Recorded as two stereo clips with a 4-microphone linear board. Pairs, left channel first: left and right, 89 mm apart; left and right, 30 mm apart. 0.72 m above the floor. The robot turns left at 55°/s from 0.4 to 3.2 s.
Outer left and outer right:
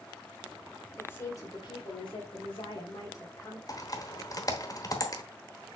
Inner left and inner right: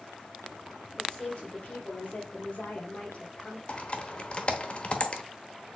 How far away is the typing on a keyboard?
About 1.0 m.